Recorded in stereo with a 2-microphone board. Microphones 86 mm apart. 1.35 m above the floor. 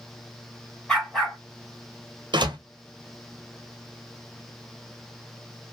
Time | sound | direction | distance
0.9 | a dog barking | 5° left (ahead or behind) | 2 m
2.3 | a door slam | 70° right (ahead or behind) | 0.8 m